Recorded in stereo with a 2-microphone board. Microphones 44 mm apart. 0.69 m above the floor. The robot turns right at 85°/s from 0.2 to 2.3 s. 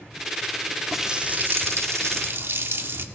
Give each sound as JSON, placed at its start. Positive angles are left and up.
{"t": 0.9, "sound": "a running tap", "azimuth_deg": 180, "distance_m": 0.7}